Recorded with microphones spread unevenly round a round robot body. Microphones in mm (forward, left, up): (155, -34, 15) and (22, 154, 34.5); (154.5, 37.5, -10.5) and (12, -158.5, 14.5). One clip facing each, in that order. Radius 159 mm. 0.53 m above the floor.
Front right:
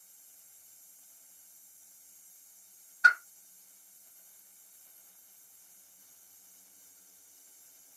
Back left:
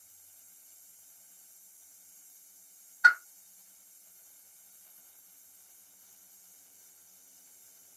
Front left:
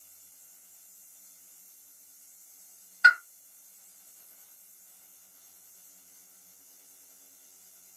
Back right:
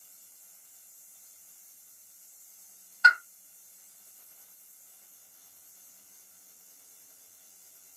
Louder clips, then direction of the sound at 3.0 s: Back left 1 dB, even; 10° right.